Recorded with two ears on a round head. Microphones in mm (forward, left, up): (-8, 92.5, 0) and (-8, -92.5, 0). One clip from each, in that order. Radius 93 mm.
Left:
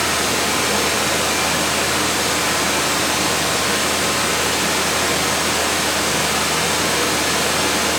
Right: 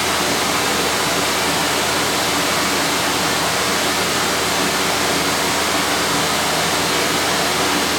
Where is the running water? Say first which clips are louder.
Right 1 dB; 5° right (ahead or behind), 3 m.